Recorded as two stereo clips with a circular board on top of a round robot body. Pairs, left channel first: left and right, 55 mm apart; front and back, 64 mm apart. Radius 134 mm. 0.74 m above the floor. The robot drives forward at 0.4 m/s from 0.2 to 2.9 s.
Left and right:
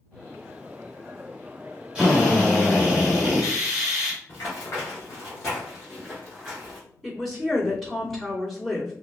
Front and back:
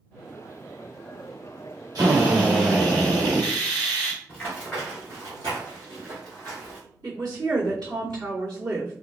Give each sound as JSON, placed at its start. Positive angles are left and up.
{"t": 1.9, "sound": "a drill", "azimuth_deg": -165, "distance_m": 1.4}
{"t": 4.3, "sound": "running footsteps", "azimuth_deg": 65, "distance_m": 0.8}
{"t": 7.0, "sound": "a woman speaking", "azimuth_deg": 175, "distance_m": 1.8}